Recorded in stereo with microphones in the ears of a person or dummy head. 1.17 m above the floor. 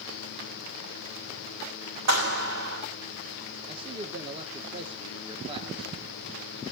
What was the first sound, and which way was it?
A clap, 65° right (ahead or behind).